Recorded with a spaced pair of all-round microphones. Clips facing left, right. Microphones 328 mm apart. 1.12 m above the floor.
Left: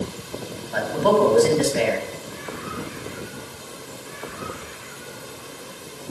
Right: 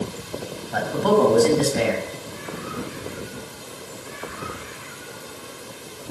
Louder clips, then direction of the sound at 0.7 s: Even; 55° right (ahead or behind).